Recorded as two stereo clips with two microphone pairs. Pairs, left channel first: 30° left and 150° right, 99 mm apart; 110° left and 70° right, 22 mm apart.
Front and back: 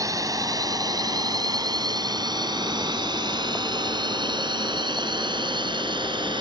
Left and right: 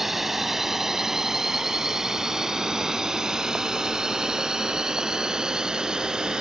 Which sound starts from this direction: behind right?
A drone, at 0.0 s.